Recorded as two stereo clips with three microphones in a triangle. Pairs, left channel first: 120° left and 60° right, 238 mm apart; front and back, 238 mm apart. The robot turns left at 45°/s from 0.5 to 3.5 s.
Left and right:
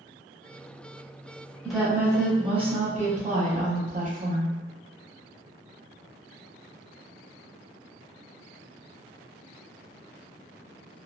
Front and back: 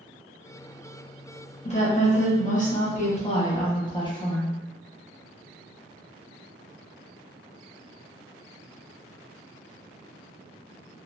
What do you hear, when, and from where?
1.6 s a woman speaking: 30° left, 0.9 m; by 4.5 s 55° right, 0.9 m